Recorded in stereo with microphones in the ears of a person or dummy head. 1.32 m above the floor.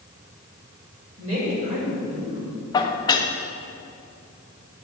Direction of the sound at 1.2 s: 30° right (ahead or behind).